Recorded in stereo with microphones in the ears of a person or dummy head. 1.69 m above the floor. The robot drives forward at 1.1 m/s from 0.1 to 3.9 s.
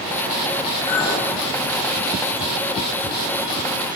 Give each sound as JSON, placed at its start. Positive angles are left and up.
{"t": 0.9, "sound": "a clink", "side_deg": 25, "distance_m": 6.0}